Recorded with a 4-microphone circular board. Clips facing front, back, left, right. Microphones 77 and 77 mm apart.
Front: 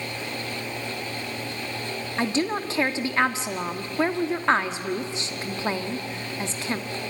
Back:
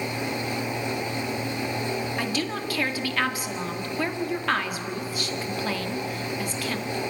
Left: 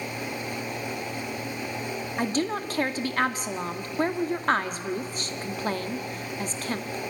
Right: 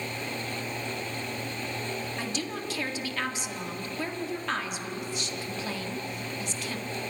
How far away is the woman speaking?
About 1.6 m.